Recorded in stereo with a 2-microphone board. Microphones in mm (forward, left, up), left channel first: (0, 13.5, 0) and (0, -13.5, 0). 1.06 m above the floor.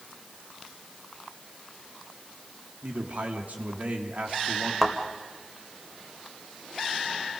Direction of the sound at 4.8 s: 5° right (ahead or behind).